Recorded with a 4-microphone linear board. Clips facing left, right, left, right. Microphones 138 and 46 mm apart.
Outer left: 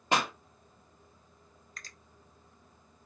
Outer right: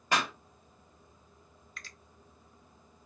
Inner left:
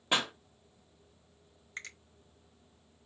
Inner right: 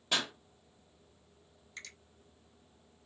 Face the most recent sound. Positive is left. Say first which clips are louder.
# outer right 1 dB, inner left 5 dB
turn(degrees=40)  # may be behind; listen again after turning